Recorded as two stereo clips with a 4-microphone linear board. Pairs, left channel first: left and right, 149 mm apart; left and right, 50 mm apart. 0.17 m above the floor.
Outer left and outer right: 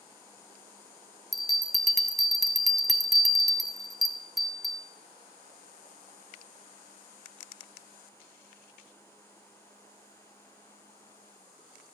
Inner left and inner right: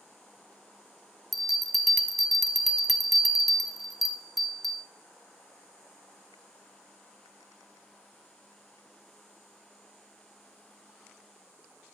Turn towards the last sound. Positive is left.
turn(degrees=0)  # may be behind; listen again after turning